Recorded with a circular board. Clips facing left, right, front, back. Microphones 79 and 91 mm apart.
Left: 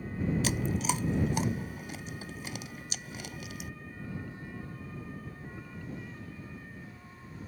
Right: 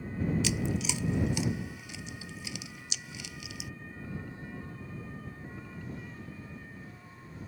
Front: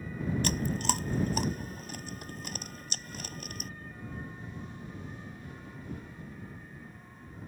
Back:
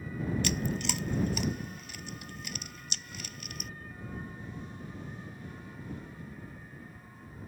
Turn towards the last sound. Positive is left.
turn(degrees=45)